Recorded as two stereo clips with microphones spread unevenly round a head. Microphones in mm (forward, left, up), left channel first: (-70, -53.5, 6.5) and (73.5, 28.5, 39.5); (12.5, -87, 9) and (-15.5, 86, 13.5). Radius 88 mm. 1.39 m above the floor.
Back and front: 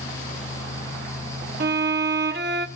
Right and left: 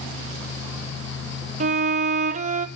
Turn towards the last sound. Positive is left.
turn(degrees=50)